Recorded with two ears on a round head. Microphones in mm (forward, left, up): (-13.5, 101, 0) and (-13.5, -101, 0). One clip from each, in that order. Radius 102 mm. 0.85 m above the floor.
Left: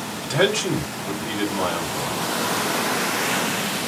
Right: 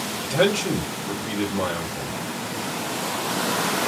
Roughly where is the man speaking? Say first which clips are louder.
Left 1 dB; left.